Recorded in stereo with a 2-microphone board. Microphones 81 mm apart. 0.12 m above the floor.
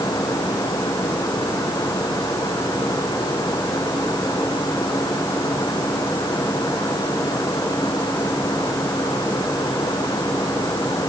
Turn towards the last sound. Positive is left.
No sound to turn to.